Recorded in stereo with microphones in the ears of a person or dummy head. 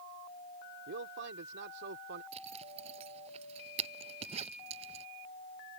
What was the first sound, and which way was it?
A man speaking, 65° right (ahead or behind).